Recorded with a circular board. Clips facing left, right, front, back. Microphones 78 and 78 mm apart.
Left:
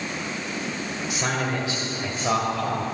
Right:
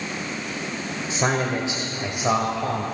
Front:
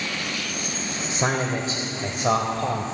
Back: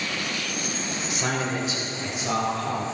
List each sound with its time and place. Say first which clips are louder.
1.1 s a man speaking: right 4 dB, front 3 dB; 45° right, 1.6 m; by 2.8 s 10° right, 2.0 m